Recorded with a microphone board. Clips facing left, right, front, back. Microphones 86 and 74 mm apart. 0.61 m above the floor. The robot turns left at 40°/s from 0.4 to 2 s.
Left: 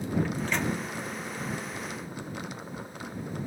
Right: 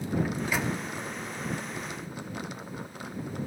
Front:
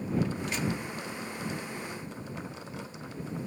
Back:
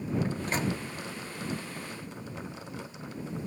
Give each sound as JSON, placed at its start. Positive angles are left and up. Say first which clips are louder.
{"t": 0.2, "sound": "a microwave", "louder": "even, back 1 dB", "azimuth_deg": -160}